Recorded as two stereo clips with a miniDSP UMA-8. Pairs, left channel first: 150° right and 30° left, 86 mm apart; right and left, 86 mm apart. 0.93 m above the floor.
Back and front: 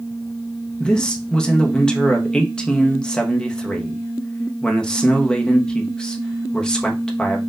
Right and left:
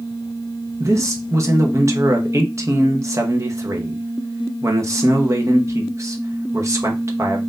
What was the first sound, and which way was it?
A man speaking, 130° left.